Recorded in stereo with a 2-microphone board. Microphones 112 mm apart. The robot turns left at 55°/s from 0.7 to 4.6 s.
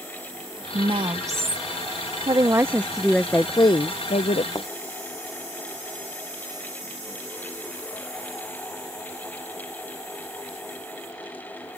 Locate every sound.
0.7 s a woman speaking: 120° right; by 1.7 s 170° right
2.3 s a woman speaking: 140° right; by 4.5 s 100° left
4.5 s a thud: 35° left (ahead or behind); by 4.7 s 40° left (ahead or behind)